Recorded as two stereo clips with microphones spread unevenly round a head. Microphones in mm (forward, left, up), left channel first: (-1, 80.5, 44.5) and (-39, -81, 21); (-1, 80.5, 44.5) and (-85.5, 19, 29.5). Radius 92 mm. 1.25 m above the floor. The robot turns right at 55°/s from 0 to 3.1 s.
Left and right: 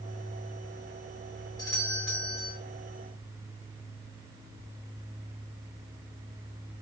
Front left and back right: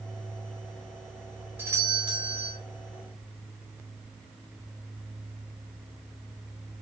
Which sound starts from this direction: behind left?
A doorbell, at 1.6 s.